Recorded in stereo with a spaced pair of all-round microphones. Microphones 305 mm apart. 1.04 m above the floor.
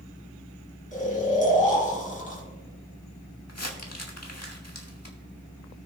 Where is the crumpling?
55° left (ahead or behind), 1.8 m.